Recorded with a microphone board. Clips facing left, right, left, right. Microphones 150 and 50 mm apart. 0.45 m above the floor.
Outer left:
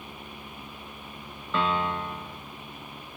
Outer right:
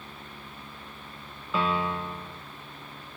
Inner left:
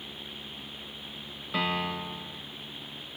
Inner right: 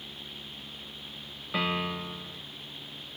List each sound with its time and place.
1.5 s a piano: 5° right (ahead or behind), 2 m